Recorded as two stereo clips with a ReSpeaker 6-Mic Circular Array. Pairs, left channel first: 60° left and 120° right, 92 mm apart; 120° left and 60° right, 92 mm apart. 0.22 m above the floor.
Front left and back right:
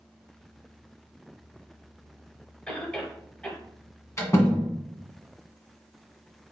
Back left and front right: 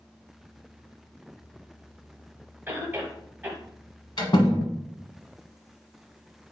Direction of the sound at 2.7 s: 5° right.